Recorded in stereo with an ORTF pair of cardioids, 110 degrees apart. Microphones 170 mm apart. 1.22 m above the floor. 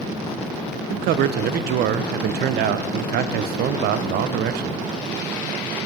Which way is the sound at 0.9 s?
70° right.